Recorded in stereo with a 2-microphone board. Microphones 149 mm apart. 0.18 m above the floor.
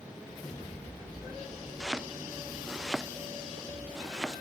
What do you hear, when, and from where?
1.8 s chopping: 5° right (ahead or behind)